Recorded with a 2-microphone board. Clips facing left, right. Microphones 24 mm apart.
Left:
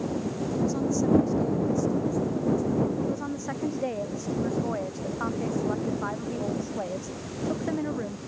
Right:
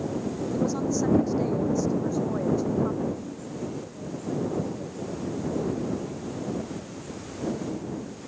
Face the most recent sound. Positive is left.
turn(degrees=75)  # may be behind; listen again after turning